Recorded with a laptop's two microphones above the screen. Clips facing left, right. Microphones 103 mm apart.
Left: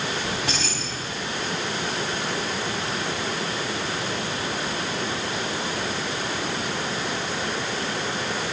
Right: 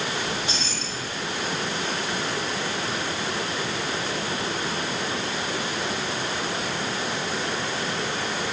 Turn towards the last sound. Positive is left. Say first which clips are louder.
# left 1 dB
turn(degrees=80)